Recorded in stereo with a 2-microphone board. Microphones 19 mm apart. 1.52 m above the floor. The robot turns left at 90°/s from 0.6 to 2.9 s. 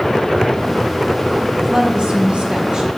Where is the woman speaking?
30° right, 1.1 m; by 3.0 s 145° right, 1.1 m.